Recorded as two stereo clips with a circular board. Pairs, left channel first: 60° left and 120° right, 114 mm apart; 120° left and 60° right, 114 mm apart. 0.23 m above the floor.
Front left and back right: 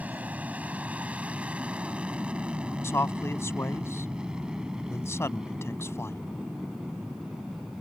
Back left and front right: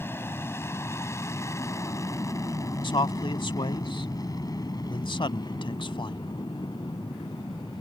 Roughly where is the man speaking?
Behind left.